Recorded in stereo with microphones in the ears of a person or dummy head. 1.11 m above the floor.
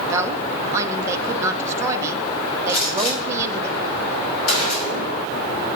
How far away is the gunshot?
About 4 m.